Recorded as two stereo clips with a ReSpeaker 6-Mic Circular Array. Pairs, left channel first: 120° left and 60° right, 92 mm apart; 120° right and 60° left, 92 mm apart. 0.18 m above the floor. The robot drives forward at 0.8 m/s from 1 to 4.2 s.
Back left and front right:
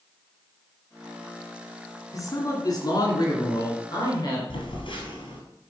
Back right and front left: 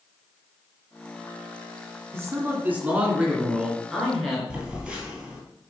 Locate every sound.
2.1 s a man speaking: 105° left, 1.9 m; by 4.4 s 150° left, 2.5 m
4.5 s a phone buzzing: 140° left, 2.5 m